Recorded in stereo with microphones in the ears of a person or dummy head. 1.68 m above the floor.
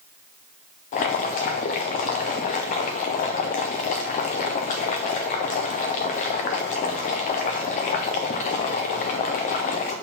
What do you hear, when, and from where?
0.9 s boiling: 30° left (ahead or behind), 0.6 m